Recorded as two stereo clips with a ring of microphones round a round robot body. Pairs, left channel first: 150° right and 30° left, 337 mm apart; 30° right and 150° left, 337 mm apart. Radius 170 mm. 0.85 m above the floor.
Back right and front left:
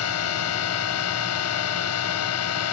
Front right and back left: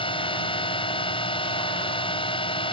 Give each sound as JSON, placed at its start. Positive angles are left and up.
{"t": 0.0, "sound": "a drone", "azimuth_deg": -105}